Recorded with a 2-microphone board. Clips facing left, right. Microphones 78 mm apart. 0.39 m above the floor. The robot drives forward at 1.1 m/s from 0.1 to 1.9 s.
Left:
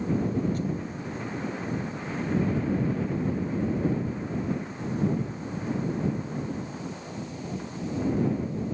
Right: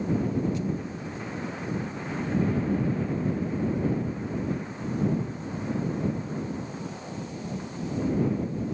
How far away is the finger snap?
No finger snap in this recording.